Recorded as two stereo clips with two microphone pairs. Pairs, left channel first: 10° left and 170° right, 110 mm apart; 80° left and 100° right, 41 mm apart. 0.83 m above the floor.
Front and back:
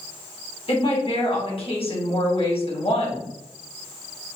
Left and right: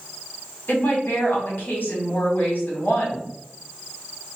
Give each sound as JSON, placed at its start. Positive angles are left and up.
{"t": 0.7, "sound": "a woman speaking", "azimuth_deg": 35, "distance_m": 1.9}